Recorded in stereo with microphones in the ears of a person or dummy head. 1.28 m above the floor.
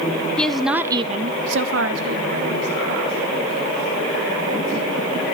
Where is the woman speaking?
5° left (ahead or behind), 1.2 m; by 5.2 s 50° right (ahead or behind), 5 m.